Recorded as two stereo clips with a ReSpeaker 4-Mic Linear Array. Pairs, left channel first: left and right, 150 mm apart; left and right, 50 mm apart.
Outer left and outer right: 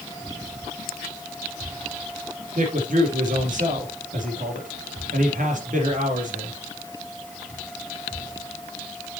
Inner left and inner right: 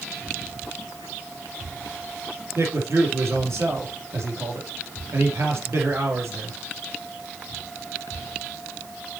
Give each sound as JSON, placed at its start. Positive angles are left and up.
{"t": 2.5, "sound": "a man speaking", "side_deg": -60, "distance_m": 3.5}